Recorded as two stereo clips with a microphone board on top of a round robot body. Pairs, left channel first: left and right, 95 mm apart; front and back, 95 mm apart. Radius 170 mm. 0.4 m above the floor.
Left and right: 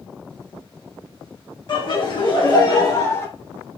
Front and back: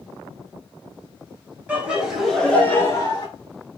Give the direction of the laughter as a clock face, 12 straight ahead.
8 o'clock.